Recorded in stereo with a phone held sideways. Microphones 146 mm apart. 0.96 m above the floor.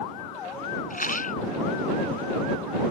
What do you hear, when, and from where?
0.9 s a rattle: 65° left (ahead or behind)